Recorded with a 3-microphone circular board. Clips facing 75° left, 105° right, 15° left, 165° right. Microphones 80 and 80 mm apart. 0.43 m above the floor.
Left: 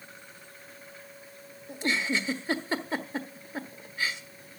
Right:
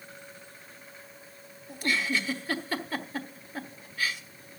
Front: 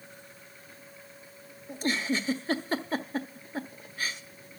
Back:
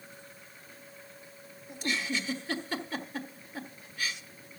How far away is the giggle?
About 1.3 m.